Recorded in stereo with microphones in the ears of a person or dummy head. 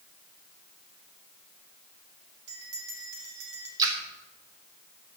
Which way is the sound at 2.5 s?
80° right.